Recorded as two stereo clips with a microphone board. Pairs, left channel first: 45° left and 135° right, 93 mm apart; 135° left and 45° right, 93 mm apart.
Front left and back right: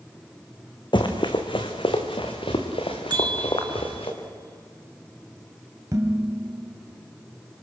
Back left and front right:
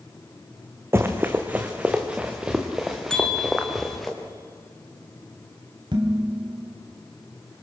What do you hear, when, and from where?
0.9 s running footsteps: 20° left, 2 m; by 4.1 s 45° left, 3.5 m
3.1 s a bell: 145° right, 1.6 m
5.9 s dishes clattering: 80° right, 3 m